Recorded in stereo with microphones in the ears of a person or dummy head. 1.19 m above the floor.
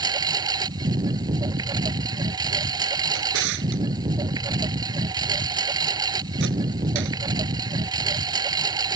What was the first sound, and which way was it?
A lawn mower, 25° right (ahead or behind).